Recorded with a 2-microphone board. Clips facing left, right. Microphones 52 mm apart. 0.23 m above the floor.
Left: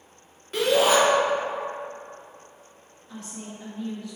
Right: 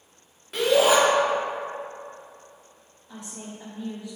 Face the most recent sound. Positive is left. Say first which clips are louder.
# left 1 dB
turn(degrees=-20)  # may be behind; listen again after turning